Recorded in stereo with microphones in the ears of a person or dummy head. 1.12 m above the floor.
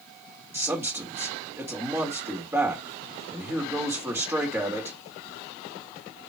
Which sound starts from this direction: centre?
A man speaking, at 0.5 s.